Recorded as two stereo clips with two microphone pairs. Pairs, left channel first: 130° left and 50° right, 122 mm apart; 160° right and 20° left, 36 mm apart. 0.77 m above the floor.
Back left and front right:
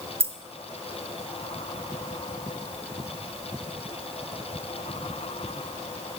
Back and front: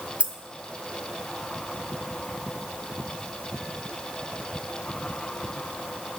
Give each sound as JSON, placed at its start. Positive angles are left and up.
{"t": 0.2, "sound": "keys jangling", "azimuth_deg": -30, "distance_m": 0.5}